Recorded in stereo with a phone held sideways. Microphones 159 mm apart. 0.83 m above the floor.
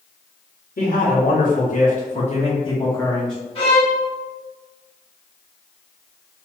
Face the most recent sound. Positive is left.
turn(degrees=35)  # may be behind; listen again after turning